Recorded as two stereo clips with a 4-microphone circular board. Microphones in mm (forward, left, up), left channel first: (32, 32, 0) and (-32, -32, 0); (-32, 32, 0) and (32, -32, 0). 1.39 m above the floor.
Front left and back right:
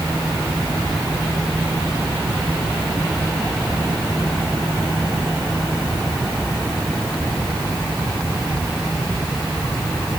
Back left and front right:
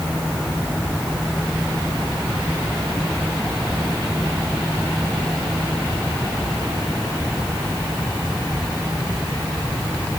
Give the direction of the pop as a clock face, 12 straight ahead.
No pop in this recording.